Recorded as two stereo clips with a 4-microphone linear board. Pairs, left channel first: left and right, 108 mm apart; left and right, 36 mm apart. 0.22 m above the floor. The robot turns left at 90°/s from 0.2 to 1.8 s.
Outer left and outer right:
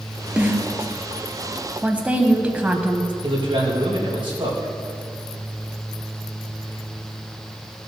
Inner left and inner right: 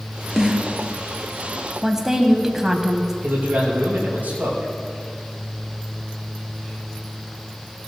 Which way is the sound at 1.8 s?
15° right (ahead or behind).